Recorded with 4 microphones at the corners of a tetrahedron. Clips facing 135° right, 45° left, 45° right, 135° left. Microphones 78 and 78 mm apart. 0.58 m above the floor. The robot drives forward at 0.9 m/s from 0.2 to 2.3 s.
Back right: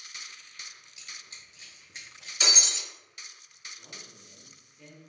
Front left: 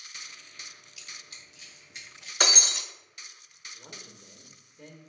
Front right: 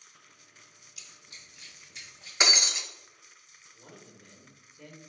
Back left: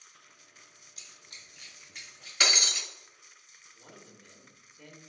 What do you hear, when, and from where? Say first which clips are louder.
1.0 s running footsteps: even, even; 170° left, 0.8 m
2.4 s breaking glass: front left 4 dB, front right 1 dB; 20° left, 0.5 m
3.7 s a man speaking: front left 2 dB, front right 1 dB; 45° left, 0.7 m